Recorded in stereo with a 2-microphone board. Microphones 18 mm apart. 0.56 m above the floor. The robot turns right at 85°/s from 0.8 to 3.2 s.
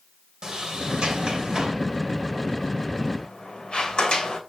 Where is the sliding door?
60° right (ahead or behind), 2 m; by 4.4 s 70° left (ahead or behind), 2 m.